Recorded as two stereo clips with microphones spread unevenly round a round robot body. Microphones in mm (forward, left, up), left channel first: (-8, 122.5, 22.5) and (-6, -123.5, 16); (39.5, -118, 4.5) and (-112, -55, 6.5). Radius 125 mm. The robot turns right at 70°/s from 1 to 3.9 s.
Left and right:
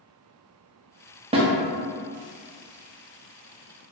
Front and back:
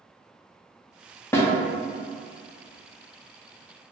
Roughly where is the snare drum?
Right.